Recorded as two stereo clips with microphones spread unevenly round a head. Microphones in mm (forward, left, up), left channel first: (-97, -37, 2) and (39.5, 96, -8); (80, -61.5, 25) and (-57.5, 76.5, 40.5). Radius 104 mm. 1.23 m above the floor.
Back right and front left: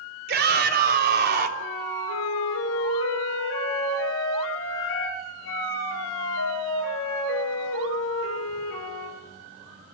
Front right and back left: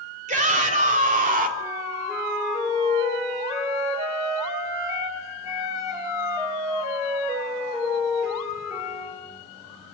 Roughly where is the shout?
Left.